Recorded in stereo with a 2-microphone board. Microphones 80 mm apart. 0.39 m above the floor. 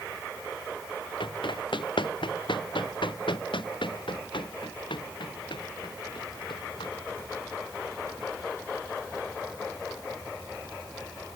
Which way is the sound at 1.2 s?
80° left.